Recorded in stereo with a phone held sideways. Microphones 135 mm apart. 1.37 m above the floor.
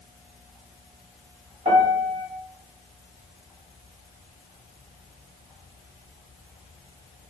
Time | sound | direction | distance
1.6 | a piano | 70° right (ahead or behind) | 1.9 m